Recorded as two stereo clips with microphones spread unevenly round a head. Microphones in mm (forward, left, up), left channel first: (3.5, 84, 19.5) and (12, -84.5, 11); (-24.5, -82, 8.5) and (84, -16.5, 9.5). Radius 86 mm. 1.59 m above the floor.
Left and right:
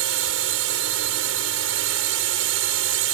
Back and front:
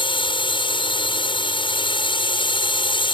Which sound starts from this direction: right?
A drone, at 0.0 s.